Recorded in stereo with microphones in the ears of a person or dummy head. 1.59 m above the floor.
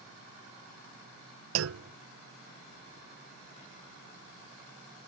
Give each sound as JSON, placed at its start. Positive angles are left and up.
{"t": 1.6, "sound": "a clunk", "side_deg": -85}